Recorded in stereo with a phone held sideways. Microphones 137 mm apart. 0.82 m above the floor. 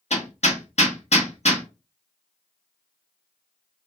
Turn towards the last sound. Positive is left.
turn(degrees=55)  # may be behind; listen again after turning